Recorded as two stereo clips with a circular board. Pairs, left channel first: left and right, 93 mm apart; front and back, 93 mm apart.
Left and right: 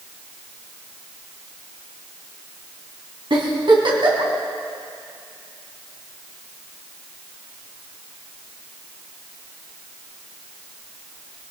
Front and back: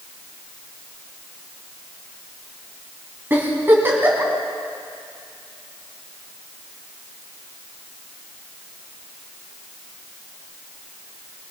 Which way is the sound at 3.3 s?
115° right.